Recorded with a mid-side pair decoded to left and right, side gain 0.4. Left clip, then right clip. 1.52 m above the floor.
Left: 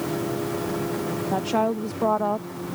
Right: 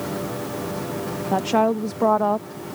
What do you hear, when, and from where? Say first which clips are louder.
1.3 s a woman speaking: right 5 dB; 25° right